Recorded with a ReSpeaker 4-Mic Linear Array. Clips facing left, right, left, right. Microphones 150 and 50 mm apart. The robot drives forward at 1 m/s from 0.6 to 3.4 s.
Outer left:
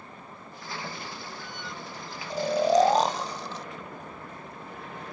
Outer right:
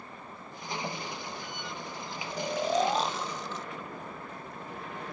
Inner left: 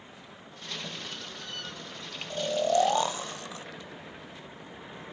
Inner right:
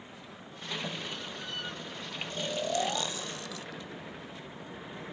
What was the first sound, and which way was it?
Snoring, 30° left (ahead or behind).